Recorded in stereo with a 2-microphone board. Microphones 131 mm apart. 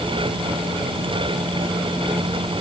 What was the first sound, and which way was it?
Only background noise.